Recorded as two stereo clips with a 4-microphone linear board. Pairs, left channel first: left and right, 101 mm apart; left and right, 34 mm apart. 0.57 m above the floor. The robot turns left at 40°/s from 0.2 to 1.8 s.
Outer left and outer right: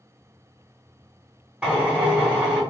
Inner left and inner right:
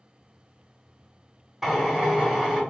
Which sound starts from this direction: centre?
A drill, at 1.6 s.